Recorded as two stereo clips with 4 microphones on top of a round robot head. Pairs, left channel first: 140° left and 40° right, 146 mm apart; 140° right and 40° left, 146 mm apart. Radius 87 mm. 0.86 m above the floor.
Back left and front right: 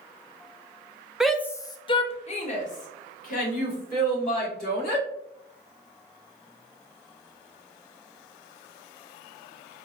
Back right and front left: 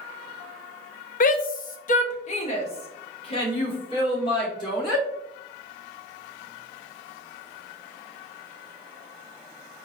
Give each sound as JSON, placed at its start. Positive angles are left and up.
{"t": 1.2, "sound": "a shout", "azimuth_deg": -125, "distance_m": 0.6}